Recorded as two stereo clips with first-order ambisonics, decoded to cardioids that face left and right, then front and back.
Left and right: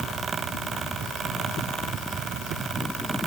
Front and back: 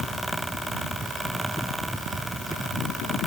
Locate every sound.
Only background noise.